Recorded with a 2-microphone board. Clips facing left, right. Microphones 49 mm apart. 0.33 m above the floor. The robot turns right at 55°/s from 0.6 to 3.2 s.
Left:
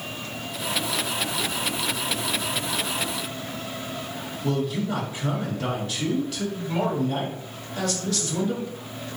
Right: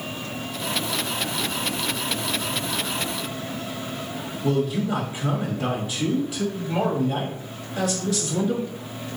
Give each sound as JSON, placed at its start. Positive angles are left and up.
{"t": 4.4, "sound": "a man speaking", "side_deg": -15, "distance_m": 1.9}